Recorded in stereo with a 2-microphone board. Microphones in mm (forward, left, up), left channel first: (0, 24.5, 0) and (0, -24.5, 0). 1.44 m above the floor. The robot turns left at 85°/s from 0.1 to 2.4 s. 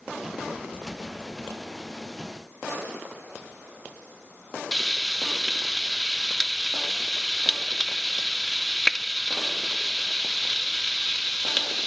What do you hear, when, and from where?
4.7 s frying: 10° left (ahead or behind), 0.6 m